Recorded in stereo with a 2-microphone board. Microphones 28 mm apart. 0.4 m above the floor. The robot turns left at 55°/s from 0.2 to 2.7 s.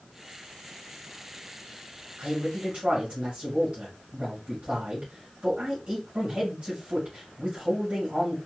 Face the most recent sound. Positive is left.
turn(degrees=-45)  # may be behind; listen again after turning